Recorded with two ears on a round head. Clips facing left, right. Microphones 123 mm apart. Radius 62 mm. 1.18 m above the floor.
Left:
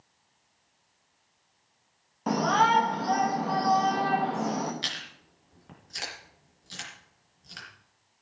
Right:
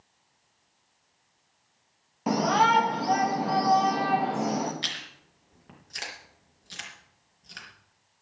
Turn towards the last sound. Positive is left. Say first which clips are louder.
# even
turn(degrees=0)  # may be behind; listen again after turning